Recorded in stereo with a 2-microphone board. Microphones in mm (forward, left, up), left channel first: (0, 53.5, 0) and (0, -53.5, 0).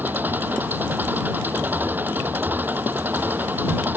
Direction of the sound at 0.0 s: 20° right (ahead or behind).